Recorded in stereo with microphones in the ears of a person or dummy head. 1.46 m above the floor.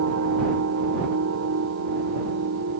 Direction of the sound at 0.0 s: 75° right (ahead or behind).